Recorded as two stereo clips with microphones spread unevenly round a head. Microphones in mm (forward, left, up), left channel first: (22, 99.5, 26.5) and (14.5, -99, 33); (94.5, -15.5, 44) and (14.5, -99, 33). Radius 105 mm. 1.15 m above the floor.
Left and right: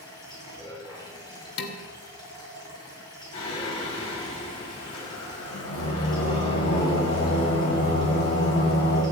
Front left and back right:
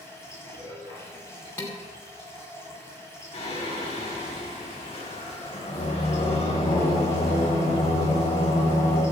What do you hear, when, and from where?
0.0 s running water: 160° left, 6 m
1.6 s dishes clattering: 125° left, 2.0 m
3.3 s singing: 100° left, 6 m